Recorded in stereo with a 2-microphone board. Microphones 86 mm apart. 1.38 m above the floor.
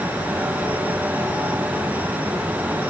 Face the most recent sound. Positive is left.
No sound to turn to.